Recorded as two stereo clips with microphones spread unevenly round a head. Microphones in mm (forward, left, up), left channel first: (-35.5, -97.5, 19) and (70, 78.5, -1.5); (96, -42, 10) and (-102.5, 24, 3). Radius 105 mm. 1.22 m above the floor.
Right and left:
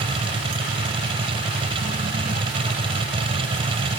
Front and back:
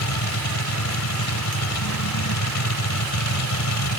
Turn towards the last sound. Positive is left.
turn(degrees=-10)